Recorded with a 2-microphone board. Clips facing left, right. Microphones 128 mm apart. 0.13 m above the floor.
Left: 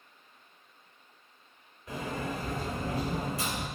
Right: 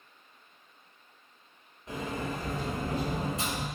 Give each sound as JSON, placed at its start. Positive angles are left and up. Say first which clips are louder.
{"t": 1.9, "sound": "a sliding door", "louder": "even", "side_deg": -25, "distance_m": 1.5}